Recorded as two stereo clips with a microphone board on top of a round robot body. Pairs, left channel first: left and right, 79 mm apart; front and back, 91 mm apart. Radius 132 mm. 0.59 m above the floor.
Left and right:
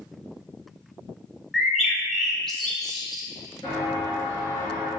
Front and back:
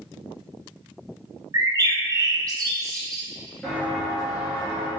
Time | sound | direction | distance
1.5 | a bird | 175° left | 0.7 m
3.6 | footsteps | 75° left | 0.5 m